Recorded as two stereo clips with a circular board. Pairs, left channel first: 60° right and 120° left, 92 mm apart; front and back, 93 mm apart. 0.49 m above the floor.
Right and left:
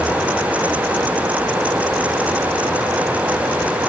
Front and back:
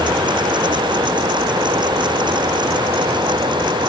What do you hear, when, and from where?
Only background noise.